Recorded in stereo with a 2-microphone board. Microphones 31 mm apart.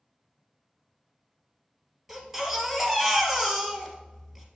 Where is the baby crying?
10° right (ahead or behind), 1.8 m.